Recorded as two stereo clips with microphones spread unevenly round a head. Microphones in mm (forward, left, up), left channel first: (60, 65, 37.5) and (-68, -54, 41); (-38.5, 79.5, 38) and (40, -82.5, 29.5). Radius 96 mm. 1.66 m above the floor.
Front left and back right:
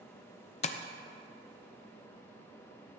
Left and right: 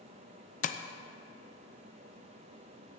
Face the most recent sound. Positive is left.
turn(degrees=85)